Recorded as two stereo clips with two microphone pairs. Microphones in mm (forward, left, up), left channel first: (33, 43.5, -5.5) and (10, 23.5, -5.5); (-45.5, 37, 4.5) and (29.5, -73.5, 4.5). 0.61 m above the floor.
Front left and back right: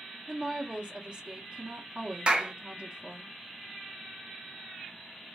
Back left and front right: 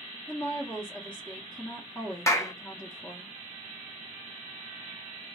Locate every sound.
0.3 s a woman speaking: 165° right, 0.8 m
2.3 s a clap: straight behind, 0.6 m